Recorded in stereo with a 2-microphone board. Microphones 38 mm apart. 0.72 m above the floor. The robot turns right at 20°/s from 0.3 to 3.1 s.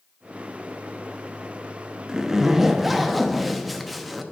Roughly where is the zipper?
Centre.